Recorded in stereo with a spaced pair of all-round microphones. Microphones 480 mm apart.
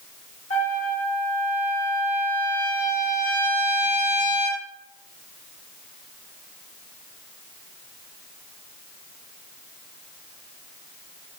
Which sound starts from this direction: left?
A trumpet, at 0.5 s.